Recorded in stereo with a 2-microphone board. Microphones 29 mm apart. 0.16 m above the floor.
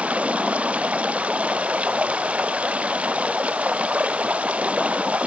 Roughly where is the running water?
Right.